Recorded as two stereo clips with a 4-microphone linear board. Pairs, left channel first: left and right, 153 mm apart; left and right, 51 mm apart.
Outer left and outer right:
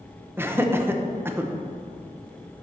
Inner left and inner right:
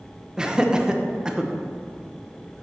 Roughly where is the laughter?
Centre.